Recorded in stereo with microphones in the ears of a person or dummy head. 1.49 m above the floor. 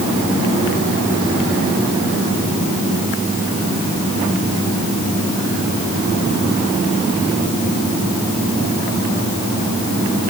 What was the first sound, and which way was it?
Only background noise.